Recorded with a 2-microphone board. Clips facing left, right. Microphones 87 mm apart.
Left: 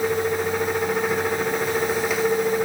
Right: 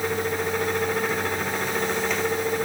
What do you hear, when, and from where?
Only background noise.